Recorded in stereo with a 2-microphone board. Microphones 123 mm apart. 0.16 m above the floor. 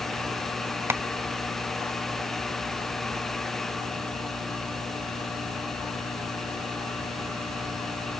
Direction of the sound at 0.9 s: 20° right (ahead or behind).